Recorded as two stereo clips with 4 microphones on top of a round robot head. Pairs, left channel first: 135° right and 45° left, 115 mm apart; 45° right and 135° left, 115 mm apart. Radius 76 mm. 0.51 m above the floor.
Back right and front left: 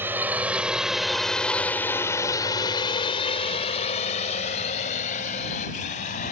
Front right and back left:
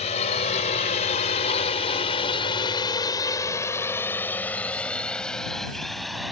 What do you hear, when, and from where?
0.0 s a drone: 25° right; by 6.3 s 135° right